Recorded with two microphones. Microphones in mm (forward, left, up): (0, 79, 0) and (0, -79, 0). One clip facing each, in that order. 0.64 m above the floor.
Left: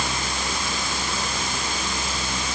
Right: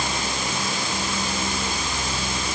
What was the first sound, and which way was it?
Only background noise.